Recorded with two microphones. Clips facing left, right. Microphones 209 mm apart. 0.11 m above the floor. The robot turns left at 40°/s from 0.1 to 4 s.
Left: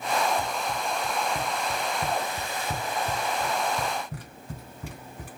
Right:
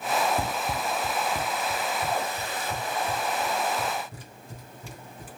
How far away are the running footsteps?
About 0.6 m.